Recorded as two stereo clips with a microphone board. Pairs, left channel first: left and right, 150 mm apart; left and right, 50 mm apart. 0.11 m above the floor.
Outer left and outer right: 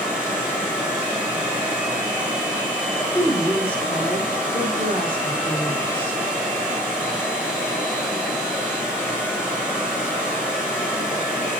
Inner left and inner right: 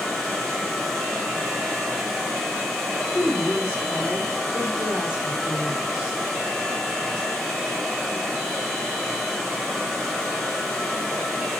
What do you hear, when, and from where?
0.0 s running water: 10° right (ahead or behind), 7 m
3.1 s a woman speaking: 15° right (ahead or behind), 4.5 m